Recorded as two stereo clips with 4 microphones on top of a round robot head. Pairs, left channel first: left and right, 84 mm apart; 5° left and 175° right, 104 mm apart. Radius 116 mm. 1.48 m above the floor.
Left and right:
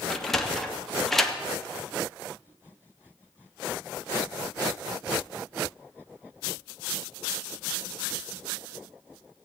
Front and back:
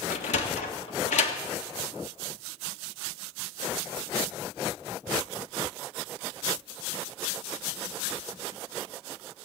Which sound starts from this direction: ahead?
A sliding door, at 0.1 s.